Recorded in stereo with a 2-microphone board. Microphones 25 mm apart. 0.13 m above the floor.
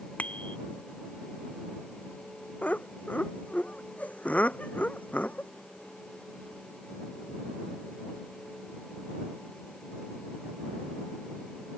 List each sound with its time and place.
0.2 s a bicycle bell: 85° left
2.6 s laughter: 75° left (ahead or behind)